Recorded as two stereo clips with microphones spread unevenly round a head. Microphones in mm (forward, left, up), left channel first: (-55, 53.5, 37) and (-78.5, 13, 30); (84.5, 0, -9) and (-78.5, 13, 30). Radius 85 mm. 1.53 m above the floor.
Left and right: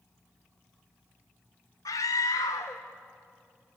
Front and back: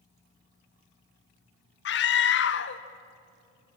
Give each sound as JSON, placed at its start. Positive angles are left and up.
{"t": 1.9, "sound": "a scream", "azimuth_deg": 20, "distance_m": 1.0}